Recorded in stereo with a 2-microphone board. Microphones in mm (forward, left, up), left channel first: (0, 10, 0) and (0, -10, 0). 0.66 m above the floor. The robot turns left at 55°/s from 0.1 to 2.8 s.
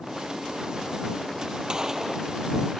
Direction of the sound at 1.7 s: 145° right.